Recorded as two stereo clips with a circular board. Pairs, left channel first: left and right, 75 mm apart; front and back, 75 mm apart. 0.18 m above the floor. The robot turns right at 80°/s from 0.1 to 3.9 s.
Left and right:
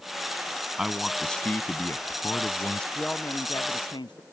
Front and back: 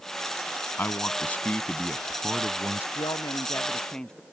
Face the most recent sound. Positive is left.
turn(degrees=80)